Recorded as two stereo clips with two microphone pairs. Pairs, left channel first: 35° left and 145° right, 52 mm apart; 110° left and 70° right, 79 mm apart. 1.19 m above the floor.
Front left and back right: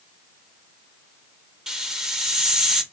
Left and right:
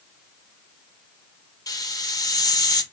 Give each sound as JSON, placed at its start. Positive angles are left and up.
{"t": 1.7, "sound": "a hiss", "azimuth_deg": 135, "distance_m": 0.7}